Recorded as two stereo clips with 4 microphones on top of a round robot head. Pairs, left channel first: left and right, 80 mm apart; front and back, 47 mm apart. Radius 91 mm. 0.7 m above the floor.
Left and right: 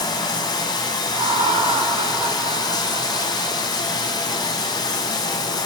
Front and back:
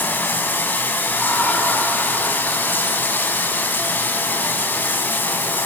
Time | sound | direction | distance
0.0 | running water | 50° left | 3 m
1.1 | laughter | 90° right | 6.5 m